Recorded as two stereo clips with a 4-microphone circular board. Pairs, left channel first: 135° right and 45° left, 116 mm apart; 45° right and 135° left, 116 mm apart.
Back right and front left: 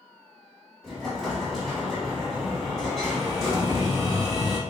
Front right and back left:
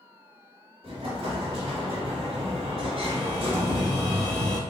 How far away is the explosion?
About 0.9 m.